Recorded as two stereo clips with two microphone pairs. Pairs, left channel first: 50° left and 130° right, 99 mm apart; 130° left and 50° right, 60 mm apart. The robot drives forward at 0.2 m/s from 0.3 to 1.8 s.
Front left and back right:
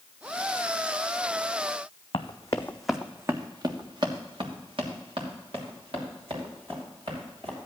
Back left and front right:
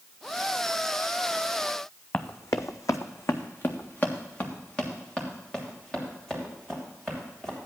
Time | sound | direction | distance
2.1 | running footsteps | 80° left | 1.2 m